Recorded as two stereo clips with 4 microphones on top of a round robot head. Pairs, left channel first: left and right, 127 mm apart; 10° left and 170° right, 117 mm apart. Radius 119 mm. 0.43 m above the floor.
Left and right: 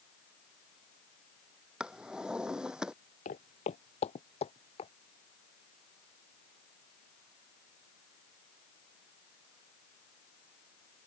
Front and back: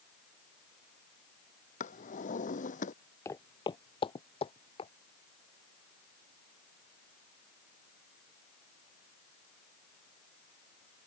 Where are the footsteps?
75° left; by 4.9 s 50° left.